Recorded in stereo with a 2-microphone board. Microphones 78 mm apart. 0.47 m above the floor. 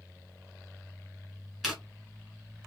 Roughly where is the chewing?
Centre.